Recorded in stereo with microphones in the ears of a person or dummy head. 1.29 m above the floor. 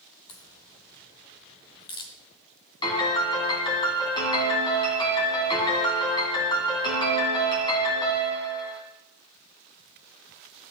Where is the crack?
25° left (ahead or behind), 1.1 m.